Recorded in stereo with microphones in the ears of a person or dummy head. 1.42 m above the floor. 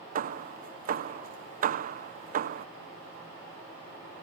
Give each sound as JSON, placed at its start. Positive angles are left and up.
{"t": 0.1, "sound": "hammering", "side_deg": -50}